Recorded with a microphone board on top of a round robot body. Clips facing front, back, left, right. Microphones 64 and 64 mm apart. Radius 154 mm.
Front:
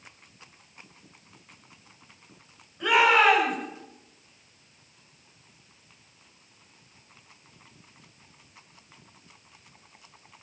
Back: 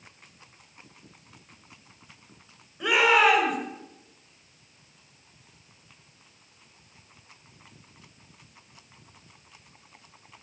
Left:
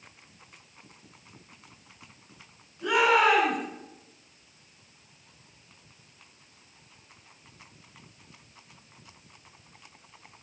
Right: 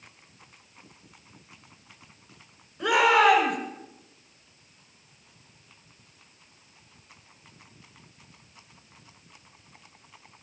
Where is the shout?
95° right, 6.5 m.